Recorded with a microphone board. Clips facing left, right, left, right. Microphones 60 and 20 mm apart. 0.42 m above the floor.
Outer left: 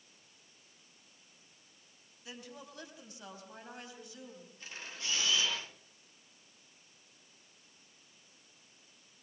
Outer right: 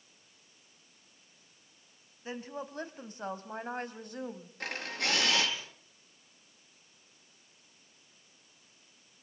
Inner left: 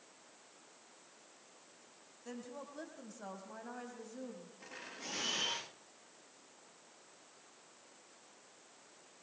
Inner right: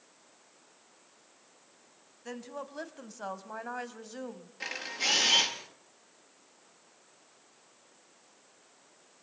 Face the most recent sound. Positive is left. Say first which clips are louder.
# outer right 10 dB, inner right 17 dB
turn(degrees=-70)  # may be behind; listen again after turning